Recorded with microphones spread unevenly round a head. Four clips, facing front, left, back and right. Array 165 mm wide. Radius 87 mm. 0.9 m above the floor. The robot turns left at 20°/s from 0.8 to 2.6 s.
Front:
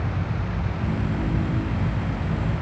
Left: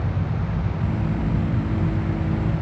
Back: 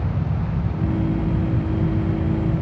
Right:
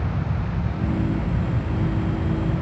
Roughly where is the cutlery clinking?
I don't hear cutlery clinking.